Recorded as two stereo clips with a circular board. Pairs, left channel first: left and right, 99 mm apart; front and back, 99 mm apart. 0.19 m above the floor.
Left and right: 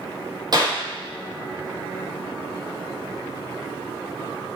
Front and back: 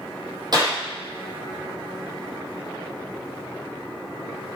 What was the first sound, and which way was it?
A clap, 135° right.